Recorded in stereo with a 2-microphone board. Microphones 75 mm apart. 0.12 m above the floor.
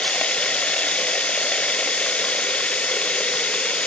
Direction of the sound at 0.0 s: 15° left (ahead or behind).